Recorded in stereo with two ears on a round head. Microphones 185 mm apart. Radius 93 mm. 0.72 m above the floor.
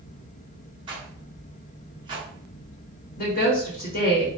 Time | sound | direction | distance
0.9 | a rattle | 25° right (ahead or behind) | 1.0 m
3.2 | a woman speaking | 45° left (ahead or behind) | 1.2 m